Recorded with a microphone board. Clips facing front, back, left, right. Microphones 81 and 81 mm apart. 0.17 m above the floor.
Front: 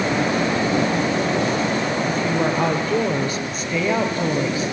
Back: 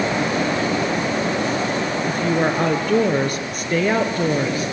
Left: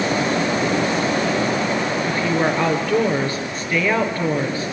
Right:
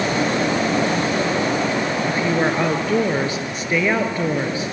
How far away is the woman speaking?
About 3 m.